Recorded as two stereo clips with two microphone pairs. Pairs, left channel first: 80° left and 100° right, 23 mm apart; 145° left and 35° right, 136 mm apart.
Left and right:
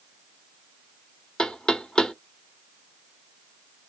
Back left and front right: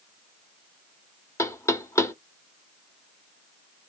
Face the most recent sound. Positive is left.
turn(degrees=90)